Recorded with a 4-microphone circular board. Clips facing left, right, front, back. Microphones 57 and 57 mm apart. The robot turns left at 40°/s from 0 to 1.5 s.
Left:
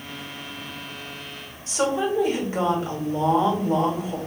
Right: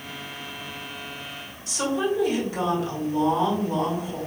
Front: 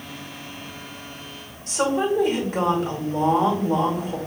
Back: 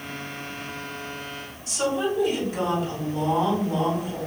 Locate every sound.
1.7 s a woman speaking: 35° left, 1.6 m